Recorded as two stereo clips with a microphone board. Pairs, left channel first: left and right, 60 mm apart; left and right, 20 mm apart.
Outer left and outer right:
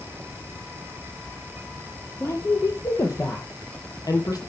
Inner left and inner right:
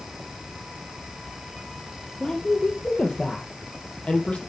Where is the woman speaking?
45° left (ahead or behind), 4 m; by 4.4 s 70° left (ahead or behind), 4 m.